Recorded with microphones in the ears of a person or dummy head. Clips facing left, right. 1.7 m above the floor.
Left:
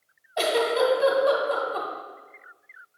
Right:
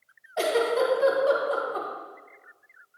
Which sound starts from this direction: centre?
A giggle, at 0.4 s.